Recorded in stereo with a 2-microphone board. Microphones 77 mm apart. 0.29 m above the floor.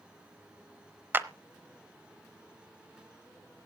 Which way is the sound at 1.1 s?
30° right (ahead or behind).